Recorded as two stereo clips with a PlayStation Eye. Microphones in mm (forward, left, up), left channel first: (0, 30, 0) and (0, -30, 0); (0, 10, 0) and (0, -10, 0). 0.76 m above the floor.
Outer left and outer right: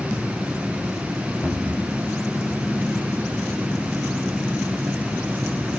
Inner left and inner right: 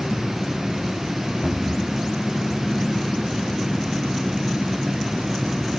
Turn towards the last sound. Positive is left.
turn(degrees=15)  # may be behind; listen again after turning